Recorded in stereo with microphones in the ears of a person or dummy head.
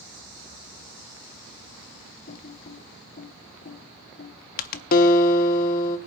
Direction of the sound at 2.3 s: 50° left (ahead or behind).